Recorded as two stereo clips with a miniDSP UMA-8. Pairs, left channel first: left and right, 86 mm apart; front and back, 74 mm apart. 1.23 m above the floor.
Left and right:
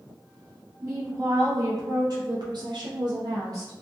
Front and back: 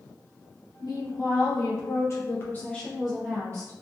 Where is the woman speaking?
35° right, 1.3 m; by 3.7 s 140° right, 0.5 m.